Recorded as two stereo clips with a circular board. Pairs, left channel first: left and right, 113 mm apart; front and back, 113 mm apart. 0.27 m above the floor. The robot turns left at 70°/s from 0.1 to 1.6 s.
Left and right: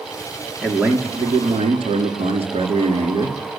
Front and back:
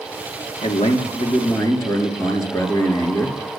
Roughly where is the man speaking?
Ahead.